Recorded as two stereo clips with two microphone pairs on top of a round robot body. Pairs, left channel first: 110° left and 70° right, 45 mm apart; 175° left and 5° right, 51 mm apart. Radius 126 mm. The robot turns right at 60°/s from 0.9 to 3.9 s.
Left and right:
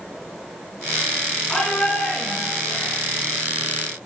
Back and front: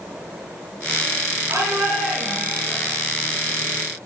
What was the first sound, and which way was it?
A shout, 30° left.